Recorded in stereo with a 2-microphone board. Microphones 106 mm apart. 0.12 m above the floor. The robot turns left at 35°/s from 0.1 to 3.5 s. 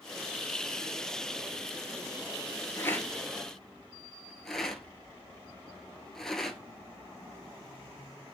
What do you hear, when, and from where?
2.8 s a rattle: 25° left (ahead or behind), 1.0 m; by 6.6 s 5° left (ahead or behind), 1.0 m